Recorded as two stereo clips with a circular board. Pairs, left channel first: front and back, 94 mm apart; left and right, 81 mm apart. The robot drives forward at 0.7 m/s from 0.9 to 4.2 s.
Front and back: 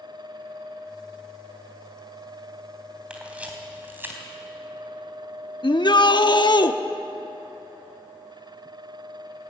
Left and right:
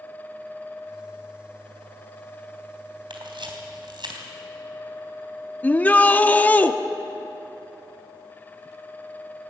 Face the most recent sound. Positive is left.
turn(degrees=20)